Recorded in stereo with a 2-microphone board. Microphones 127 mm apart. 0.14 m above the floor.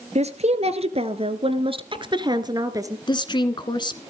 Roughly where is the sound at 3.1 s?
Left.